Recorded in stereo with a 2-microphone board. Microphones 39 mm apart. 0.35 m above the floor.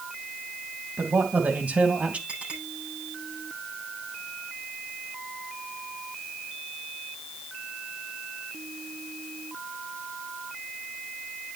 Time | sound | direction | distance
1.0 | a man speaking | 50° right (ahead or behind) | 3 m
2.3 | a clink | 35° right (ahead or behind) | 9.5 m